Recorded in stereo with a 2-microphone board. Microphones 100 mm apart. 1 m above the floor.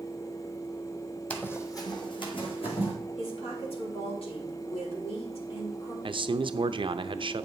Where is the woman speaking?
75° left (ahead or behind), 3.5 m.